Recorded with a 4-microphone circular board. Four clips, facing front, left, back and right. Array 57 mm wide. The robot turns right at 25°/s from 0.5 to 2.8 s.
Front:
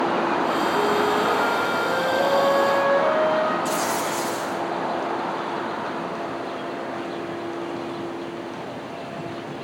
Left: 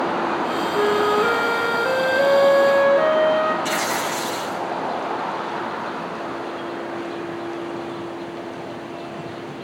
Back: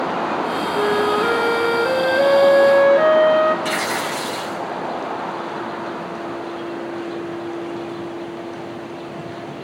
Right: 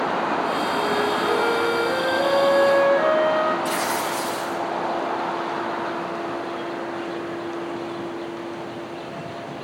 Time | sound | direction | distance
0.7 | a flute | 115° left | 6 m
3.6 | tearing paper | 155° left | 5.5 m